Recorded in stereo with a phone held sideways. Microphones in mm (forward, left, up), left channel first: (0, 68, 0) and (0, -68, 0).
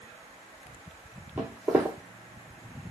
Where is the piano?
I don't hear a piano.